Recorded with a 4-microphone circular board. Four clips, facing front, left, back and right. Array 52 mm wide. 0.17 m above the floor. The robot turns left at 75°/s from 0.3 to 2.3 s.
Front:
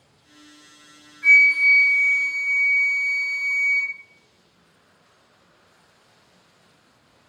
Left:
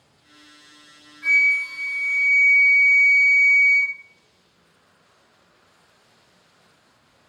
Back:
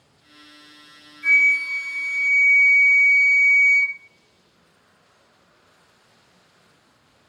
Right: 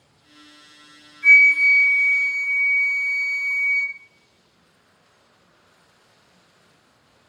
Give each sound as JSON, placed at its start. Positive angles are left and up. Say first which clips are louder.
{"t": 1.2, "sound": "a flute", "louder": "right 6 dB, front 3 dB", "azimuth_deg": 55, "distance_m": 1.8}